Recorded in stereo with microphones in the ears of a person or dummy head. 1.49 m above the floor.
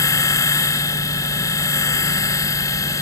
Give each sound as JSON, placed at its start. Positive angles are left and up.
{"t": 0.0, "sound": "a machine running", "side_deg": 15}